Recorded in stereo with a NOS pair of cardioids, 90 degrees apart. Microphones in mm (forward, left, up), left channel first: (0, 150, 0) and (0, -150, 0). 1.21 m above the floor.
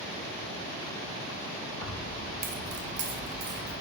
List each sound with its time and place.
1.8 s keys jangling: 15° left, 0.8 m; by 3.7 s 75° right, 1.6 m